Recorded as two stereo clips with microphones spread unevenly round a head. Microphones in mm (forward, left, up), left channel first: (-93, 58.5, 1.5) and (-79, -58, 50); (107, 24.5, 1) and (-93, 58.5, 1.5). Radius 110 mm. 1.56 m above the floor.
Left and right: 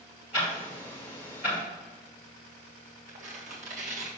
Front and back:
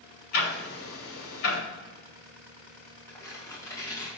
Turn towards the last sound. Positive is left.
turn(degrees=-90)